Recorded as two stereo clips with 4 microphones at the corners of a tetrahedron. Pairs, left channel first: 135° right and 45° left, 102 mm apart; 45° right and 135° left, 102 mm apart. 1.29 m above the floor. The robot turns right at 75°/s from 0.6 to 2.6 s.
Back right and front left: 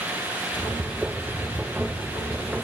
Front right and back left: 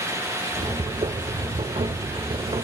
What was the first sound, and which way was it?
Only background noise.